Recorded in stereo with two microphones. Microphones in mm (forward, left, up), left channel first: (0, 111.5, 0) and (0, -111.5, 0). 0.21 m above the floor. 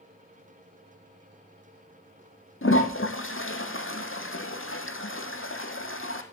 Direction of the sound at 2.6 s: 75° left (ahead or behind).